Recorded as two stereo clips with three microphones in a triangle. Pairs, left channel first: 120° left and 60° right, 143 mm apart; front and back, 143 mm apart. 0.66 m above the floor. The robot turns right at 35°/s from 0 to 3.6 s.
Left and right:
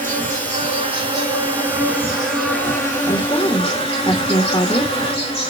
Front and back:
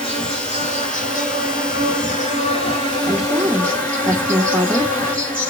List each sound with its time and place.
0.0 s an insect: 45° right, 3 m; by 5.5 s 80° left, 3 m
3.1 s a woman speaking: 95° left, 1.1 m; by 4.9 s 115° left, 1.1 m